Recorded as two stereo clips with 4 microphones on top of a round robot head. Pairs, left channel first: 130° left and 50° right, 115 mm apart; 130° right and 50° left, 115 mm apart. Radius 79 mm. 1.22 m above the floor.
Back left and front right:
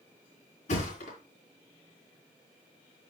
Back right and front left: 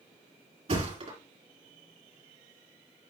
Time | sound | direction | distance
0.7 | a thud | 95° left | 3.5 m